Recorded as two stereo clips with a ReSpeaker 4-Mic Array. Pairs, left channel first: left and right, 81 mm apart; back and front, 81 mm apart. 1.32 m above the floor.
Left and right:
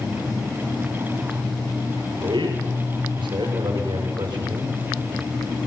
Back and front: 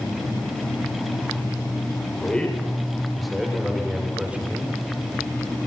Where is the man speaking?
105° right, 6.5 m; by 4.8 s 70° right, 5.5 m.